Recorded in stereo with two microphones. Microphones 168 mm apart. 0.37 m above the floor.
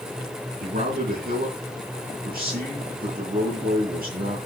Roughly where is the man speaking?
Right.